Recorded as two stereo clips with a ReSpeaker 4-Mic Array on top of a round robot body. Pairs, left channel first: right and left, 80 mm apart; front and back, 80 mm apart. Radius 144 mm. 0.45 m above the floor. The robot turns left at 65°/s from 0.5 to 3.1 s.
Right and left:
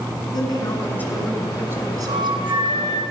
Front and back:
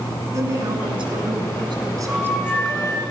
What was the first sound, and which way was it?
A woman speaking, 130° right.